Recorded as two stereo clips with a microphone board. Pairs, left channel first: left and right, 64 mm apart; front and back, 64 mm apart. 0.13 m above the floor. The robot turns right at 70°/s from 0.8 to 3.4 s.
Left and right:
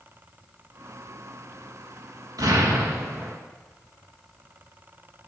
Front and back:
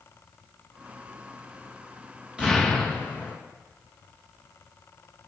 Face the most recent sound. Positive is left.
turn(degrees=-30)